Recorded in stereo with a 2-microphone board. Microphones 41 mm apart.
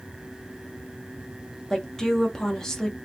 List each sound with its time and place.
1.7 s a woman speaking: 10° left (ahead or behind), 0.7 m